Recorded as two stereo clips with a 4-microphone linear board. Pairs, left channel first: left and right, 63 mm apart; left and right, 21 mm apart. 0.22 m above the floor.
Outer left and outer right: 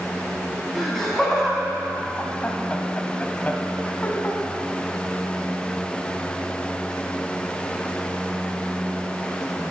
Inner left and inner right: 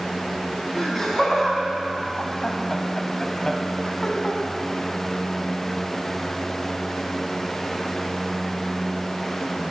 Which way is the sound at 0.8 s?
5° left (ahead or behind).